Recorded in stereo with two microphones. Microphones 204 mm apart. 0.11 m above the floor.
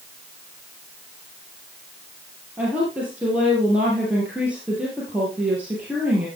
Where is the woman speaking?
5° right (ahead or behind), 3 m.